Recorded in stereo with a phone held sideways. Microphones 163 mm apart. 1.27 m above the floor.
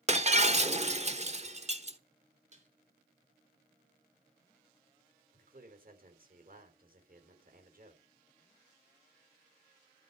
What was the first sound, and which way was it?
Breaking glass, 45° right (ahead or behind).